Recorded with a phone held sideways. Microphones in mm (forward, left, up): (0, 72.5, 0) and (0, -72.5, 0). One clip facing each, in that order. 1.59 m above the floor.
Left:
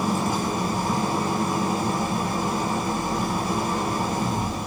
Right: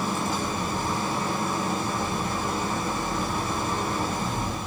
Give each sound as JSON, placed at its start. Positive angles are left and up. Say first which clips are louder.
{"t": 0.0, "sound": "an engine running", "louder": "left 4 dB", "side_deg": 15, "distance_m": 7.0}